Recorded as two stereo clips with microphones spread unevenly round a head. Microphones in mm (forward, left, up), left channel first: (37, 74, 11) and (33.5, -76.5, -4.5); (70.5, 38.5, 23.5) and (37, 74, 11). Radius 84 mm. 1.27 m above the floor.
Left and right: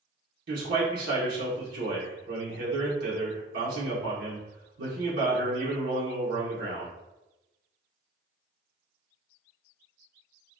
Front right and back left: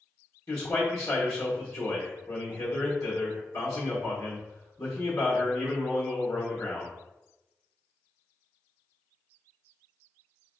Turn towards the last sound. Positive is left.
turn(degrees=-100)